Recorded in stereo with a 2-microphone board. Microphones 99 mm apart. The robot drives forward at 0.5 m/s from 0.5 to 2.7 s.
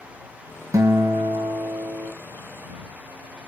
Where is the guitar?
35° right (ahead or behind), 0.6 m; by 2.1 s 30° right (ahead or behind), 0.7 m.